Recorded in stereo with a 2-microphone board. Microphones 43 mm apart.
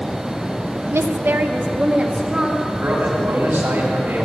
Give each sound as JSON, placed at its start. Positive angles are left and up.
{"t": 0.9, "sound": "a woman speaking", "side_deg": -80, "distance_m": 0.8}
{"t": 2.8, "sound": "a man speaking", "side_deg": -65, "distance_m": 3.5}